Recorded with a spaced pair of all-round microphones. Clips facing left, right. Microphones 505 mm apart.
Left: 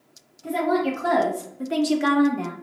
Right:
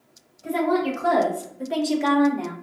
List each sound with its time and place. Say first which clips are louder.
0.4 s a woman speaking: right 1 dB; 15° left (ahead or behind), 1.5 m; by 2.5 s 30° left (ahead or behind), 0.5 m